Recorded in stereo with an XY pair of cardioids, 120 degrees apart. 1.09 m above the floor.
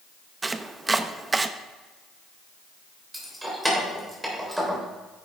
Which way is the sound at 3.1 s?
5° right.